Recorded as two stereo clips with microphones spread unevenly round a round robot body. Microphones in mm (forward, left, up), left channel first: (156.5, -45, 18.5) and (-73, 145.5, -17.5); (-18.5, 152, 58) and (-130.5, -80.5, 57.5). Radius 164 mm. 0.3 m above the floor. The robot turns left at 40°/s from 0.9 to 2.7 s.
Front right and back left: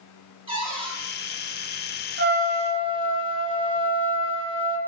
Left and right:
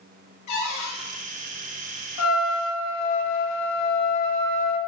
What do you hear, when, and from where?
0.5 s a cupboard door: 70° left, 5 m; by 1.0 s 65° left, 5 m
2.2 s a trumpet: 85° left, 1.3 m; by 4.8 s 65° left, 1.3 m